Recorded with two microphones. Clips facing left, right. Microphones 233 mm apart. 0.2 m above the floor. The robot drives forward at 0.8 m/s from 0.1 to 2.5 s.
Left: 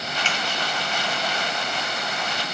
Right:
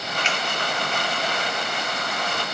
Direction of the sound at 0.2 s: 35° left (ahead or behind).